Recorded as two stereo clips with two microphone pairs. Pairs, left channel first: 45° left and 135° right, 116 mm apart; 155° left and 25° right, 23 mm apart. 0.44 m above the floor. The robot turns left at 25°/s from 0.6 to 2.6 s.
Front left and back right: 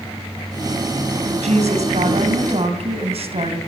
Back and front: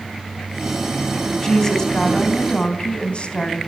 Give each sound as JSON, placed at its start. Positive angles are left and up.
{"t": 1.4, "sound": "a woman speaking", "azimuth_deg": -125, "distance_m": 3.0}